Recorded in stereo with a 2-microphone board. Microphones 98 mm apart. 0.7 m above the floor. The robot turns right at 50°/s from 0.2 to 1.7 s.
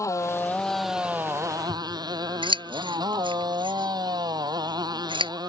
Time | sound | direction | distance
0.0 | a motorcycle | 150° left | ?
1.7 | scissors | 55° right (ahead or behind) | ?